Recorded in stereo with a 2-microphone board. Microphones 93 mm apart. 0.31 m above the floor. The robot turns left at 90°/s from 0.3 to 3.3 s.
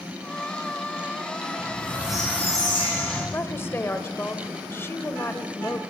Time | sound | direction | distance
1.6 | a squeak | 130° right | 9 m
3.3 | a woman speaking | 25° left (ahead or behind) | 1.0 m